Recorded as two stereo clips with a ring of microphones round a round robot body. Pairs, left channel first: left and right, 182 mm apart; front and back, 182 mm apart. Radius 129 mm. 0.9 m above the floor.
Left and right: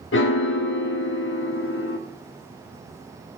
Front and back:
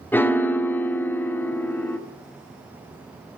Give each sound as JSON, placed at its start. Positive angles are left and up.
{"t": 0.1, "sound": "a piano", "azimuth_deg": 80, "distance_m": 1.3}